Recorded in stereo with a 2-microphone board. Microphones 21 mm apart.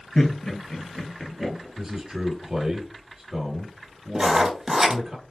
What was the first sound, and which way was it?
Laughter, 45° left (ahead or behind).